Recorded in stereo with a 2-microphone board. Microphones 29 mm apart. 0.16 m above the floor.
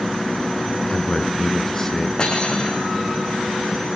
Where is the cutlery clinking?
30° left (ahead or behind), 6 m.